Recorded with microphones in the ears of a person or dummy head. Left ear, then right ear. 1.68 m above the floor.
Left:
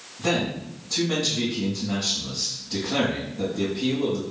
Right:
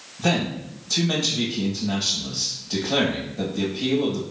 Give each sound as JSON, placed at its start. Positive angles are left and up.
{"t": 0.2, "sound": "a man speaking", "side_deg": -75, "distance_m": 1.4}